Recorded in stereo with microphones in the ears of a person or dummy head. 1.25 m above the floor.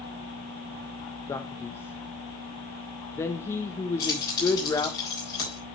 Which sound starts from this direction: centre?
A man speaking, at 1.3 s.